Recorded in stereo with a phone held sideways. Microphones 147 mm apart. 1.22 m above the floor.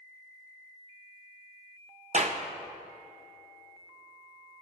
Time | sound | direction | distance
2.1 | a clap | 50° right (ahead or behind) | 0.6 m